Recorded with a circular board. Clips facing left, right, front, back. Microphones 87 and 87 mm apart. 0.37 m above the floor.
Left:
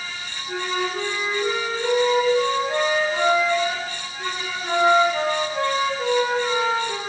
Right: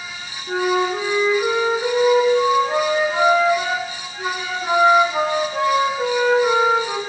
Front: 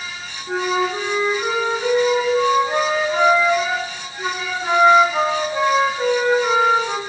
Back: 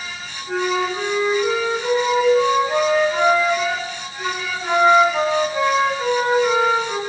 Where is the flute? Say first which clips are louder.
Right 7 dB, front 1 dB; 60° right, 4 m.